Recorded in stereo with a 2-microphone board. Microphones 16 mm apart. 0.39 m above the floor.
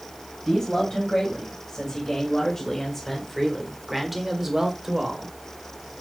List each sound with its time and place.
0.5 s a man speaking: 45° left (ahead or behind), 3 m; by 5.3 s 45° right (ahead or behind), 2.0 m